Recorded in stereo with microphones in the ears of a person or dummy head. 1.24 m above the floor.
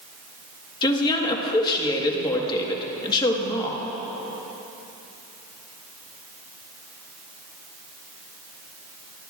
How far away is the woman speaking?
About 1.4 m.